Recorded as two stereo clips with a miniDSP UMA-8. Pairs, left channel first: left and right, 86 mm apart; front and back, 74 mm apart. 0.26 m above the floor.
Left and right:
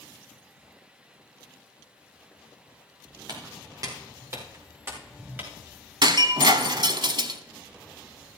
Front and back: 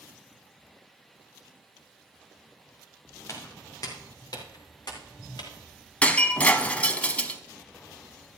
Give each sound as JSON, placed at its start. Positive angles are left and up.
{"t": 3.3, "sound": "footsteps", "azimuth_deg": -50, "distance_m": 4.0}
{"t": 6.0, "sound": "breaking glass", "azimuth_deg": -70, "distance_m": 0.9}